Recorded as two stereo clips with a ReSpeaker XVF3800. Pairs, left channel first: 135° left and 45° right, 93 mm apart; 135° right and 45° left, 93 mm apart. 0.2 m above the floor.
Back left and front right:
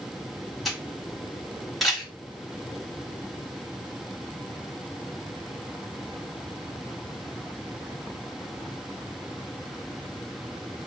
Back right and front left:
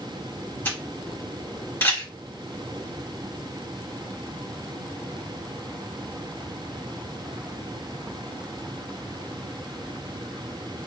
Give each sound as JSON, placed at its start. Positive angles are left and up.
{"t": 0.7, "sound": "a camera shutter", "azimuth_deg": -135, "distance_m": 1.2}